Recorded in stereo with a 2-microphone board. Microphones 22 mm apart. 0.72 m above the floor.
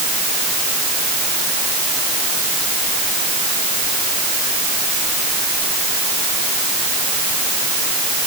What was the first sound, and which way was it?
Only background noise.